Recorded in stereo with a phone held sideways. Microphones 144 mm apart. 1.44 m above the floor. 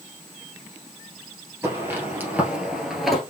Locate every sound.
1.6 s footsteps: 15° right (ahead or behind), 1.9 m; by 3.2 s centre (ahead or behind), 1.5 m